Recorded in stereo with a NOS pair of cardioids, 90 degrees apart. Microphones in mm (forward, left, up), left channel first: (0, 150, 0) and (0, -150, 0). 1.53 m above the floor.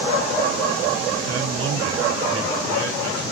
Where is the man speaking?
60° right, 2.5 m.